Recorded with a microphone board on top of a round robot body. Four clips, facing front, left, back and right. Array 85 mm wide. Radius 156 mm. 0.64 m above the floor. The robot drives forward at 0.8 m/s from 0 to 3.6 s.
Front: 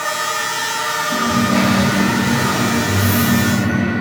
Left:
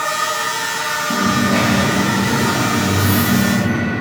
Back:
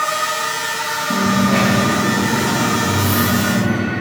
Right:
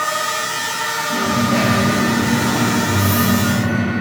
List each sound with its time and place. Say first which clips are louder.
1.1 s a dropped coin: left 1 dB, back 1 dB; 140° left, 3 m; by 3.9 s 155° left, 5 m